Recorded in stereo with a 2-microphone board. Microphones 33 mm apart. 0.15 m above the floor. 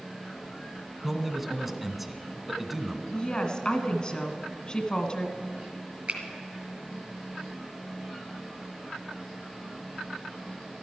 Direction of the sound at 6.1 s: 45° right (ahead or behind).